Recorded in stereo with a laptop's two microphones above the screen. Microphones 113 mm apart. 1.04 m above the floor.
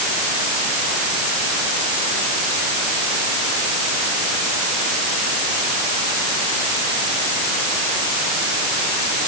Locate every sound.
Only background noise.